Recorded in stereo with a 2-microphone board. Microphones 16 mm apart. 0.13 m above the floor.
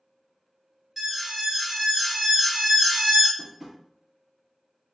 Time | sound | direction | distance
1.0 | an alarm | 20° right (ahead or behind) | 1.9 m
3.4 | tapping | 10° right (ahead or behind) | 1.3 m